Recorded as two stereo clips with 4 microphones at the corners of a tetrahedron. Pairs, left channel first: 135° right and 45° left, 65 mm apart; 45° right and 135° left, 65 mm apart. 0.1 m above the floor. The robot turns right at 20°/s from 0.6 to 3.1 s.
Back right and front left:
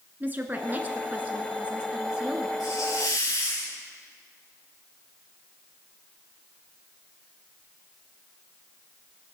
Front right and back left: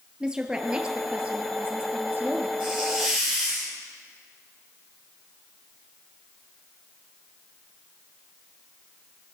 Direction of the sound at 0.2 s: 70° left.